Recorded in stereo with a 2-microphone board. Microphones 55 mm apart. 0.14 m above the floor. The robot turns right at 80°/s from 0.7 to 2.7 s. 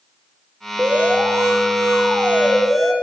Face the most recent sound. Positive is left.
turn(degrees=-5)